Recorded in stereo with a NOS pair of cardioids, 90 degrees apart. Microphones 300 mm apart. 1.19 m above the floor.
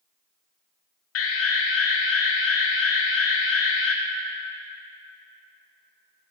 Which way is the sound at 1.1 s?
50° left.